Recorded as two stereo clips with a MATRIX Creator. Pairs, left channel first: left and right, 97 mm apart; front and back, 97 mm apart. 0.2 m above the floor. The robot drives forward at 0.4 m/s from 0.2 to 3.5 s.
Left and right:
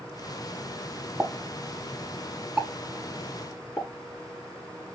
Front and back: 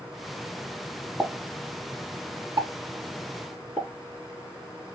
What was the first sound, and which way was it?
A pop, 130° right.